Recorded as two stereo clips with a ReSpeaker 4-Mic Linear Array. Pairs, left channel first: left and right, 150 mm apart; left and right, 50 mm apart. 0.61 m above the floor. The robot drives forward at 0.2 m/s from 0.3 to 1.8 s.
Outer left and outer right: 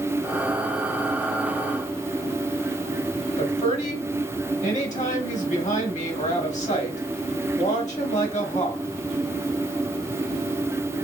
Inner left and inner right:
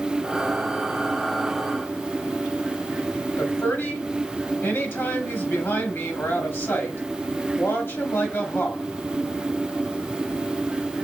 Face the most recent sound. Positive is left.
turn(degrees=50)  # may be behind; listen again after turning